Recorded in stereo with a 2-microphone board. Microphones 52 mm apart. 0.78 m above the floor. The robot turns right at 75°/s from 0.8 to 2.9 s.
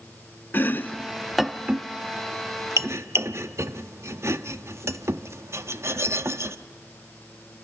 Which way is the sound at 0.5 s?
40° left (ahead or behind).